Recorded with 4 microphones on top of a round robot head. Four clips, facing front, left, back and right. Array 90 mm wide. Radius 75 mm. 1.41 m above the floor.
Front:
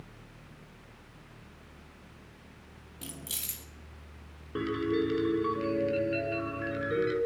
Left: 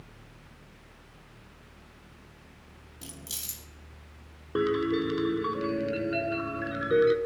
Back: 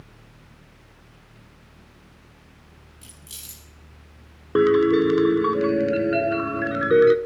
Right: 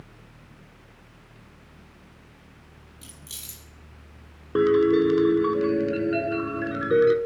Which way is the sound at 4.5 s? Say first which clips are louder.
Right 8 dB, back 13 dB; 165° right.